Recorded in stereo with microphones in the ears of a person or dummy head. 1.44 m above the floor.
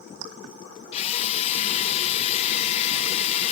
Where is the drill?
45° left (ahead or behind).